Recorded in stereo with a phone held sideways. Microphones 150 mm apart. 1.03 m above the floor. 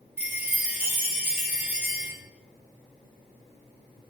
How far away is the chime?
About 3 m.